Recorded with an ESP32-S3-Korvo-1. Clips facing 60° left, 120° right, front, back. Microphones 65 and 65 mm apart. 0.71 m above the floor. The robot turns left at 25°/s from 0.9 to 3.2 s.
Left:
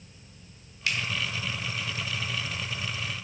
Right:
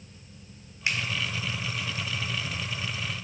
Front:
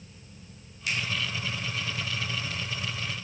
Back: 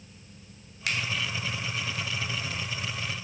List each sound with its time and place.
0.9 s a finger snap: 175° left, 1.6 m; by 1.0 s 170° left, 1.6 m